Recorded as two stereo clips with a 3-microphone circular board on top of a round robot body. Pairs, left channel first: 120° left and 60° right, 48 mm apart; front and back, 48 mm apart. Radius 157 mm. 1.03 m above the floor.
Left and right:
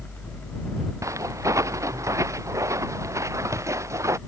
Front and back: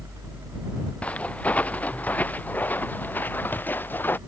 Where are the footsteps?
60° right; by 4.2 s 45° right.